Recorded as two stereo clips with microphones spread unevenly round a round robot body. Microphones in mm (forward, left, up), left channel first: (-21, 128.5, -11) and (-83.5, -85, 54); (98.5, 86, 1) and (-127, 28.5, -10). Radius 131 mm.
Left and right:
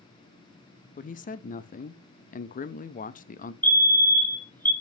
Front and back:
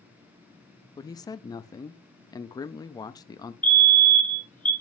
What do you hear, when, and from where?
1.0 s a man speaking: 85° left, 0.6 m
3.6 s a fire alarm: 100° left, 1.3 m